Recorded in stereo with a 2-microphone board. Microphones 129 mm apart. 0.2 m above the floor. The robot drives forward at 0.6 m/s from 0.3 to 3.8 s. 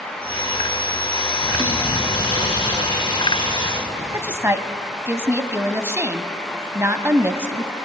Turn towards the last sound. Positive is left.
turn(degrees=-20)  # may be behind; listen again after turning